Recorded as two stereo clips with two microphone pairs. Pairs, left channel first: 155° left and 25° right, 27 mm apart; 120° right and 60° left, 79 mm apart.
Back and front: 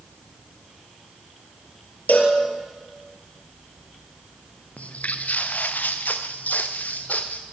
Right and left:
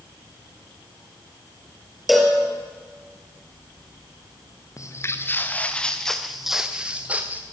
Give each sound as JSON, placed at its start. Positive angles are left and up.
{"t": 2.1, "sound": "a cowbell", "azimuth_deg": 145, "distance_m": 4.5}
{"t": 4.8, "sound": "footsteps", "azimuth_deg": -170, "distance_m": 2.5}